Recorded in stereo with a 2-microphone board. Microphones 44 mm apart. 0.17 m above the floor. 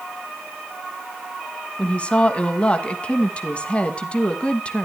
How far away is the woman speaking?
About 1.2 m.